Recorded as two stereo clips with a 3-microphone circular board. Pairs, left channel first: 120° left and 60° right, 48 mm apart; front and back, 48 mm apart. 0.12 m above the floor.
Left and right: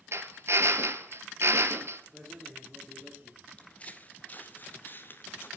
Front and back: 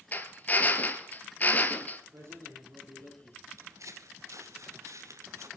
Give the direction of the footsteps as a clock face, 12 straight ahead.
6 o'clock.